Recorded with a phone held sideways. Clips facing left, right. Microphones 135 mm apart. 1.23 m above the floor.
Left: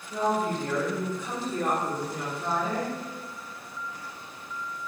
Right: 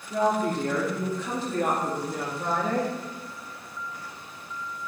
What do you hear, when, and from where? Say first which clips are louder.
0.1 s a woman speaking: right 2 dB; 75° right (ahead or behind), 3 m; by 2.9 s 70° right (ahead or behind), 1.9 m